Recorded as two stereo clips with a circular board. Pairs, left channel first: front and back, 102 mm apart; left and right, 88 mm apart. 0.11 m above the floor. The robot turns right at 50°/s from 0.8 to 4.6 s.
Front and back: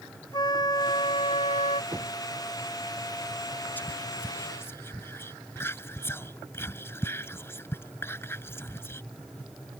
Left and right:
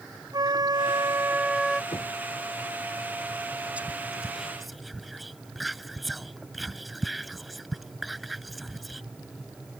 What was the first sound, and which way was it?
A flute, 50° right.